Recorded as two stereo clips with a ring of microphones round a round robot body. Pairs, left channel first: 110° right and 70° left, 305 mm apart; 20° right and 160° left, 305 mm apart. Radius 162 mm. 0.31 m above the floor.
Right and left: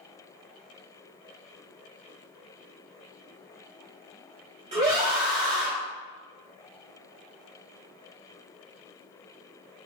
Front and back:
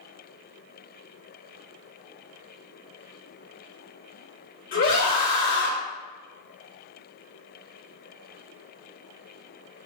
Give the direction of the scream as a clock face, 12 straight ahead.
11 o'clock.